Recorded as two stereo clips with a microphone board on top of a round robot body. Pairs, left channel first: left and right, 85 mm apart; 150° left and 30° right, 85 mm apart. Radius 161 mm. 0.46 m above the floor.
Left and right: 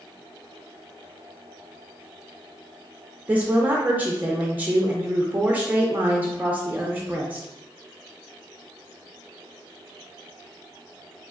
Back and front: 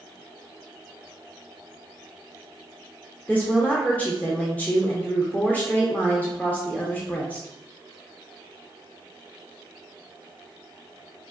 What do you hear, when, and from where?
3.3 s a woman speaking: 150° right, 0.8 m